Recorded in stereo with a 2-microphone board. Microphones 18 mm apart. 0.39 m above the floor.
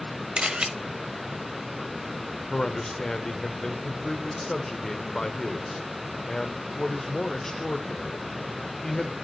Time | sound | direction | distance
0.4 | a camera shutter | 65° right (ahead or behind) | 0.7 m
2.5 | a man speaking | 30° left (ahead or behind) | 0.8 m